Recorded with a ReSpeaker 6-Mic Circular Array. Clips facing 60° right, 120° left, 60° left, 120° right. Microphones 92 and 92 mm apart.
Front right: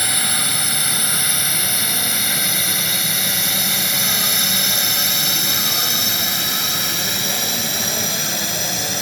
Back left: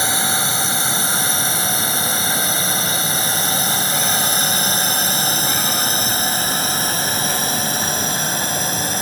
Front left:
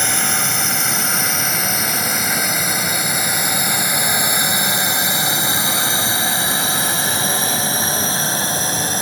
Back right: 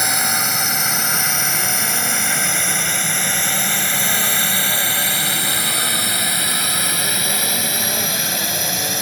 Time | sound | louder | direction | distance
0.0 | a drone | back left 4 dB, even | 160° left | ?